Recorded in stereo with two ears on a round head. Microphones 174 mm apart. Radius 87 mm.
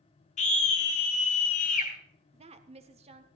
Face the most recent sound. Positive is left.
turn(degrees=-30)  # may be behind; listen again after turning